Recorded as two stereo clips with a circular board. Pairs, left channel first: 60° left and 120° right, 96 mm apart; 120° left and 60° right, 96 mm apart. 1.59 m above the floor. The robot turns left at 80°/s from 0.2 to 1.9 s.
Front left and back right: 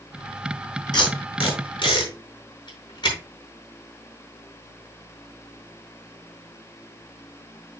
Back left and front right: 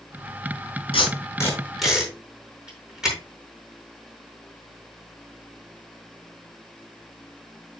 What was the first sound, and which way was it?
Tape being pulled, 100° left.